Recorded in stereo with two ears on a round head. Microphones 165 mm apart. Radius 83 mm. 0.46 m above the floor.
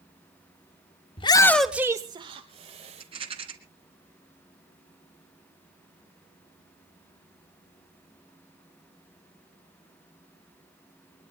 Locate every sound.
1.2 s a shout: 30° left (ahead or behind), 0.8 m; by 3.0 s 40° right (ahead or behind), 1.8 m
3.0 s a rattle: 30° right (ahead or behind), 2.5 m